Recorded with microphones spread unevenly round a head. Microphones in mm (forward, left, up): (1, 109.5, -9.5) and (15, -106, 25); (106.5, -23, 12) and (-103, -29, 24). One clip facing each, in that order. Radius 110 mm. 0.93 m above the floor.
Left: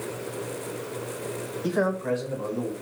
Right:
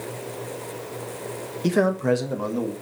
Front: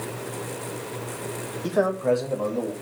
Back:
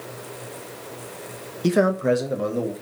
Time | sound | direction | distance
1.6 | a man speaking | 135° right | 1.1 m